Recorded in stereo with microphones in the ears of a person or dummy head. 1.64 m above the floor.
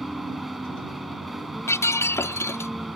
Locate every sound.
0.0 s a vehicle: centre (ahead or behind)
1.7 s breaking glass: 15° left (ahead or behind)